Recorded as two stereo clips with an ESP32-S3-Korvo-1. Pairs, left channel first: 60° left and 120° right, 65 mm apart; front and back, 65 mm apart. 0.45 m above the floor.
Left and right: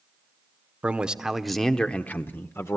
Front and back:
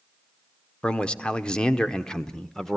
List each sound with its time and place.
0.8 s a man speaking: 65° right, 0.9 m; by 2.8 s 80° left, 1.0 m